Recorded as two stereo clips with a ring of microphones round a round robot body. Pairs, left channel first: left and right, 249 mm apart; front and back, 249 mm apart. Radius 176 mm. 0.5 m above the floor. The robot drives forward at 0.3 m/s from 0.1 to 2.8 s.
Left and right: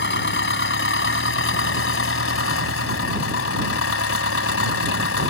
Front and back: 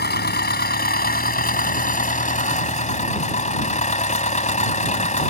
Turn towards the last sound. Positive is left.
turn(degrees=60)